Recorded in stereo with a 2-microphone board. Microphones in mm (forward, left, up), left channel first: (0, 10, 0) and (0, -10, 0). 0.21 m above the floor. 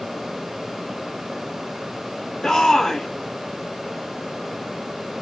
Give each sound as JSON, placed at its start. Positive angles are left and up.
{"t": 2.4, "sound": "a shout", "side_deg": 30, "distance_m": 1.4}